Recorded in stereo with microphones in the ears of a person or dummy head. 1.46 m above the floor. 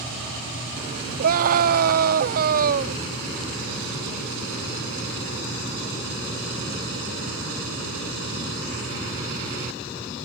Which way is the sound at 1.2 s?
45° right (ahead or behind).